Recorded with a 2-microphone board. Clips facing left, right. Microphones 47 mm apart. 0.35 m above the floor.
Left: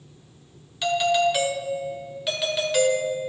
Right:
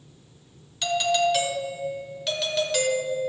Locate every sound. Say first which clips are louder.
0.8 s a doorbell: left 2 dB; 10° left (ahead or behind), 1.3 m